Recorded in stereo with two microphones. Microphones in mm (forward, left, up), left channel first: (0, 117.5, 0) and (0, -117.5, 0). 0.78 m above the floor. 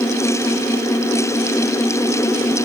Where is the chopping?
I don't hear chopping.